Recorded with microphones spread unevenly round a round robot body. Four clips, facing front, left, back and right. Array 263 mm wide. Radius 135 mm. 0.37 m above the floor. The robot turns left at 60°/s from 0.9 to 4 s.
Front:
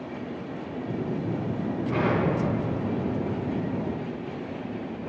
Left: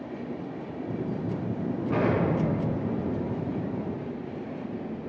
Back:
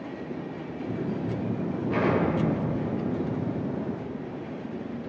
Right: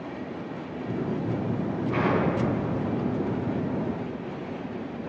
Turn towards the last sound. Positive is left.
turn(degrees=-20)